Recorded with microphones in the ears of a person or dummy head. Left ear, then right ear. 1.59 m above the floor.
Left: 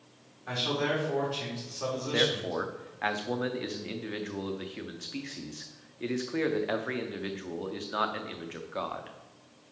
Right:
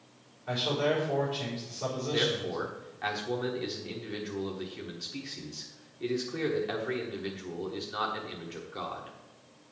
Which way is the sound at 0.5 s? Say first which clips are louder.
Right 1 dB; 55° left (ahead or behind).